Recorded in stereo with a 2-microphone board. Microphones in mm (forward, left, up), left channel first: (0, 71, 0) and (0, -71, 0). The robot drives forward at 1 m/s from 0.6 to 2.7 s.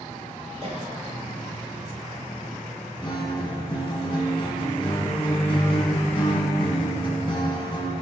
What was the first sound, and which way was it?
A cough, 45° right (ahead or behind).